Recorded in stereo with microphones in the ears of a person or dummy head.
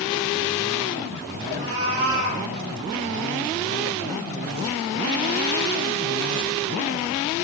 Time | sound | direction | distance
1.5 | a cat meowing | 75° right (ahead or behind) | 8 m